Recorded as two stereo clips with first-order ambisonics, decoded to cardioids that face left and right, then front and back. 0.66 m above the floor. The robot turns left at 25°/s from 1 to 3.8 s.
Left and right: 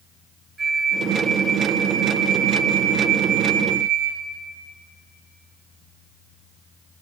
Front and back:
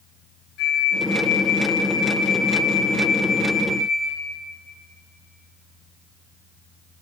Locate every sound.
0.6 s a flute: 15° right, 3 m; by 4.2 s 85° right, 3 m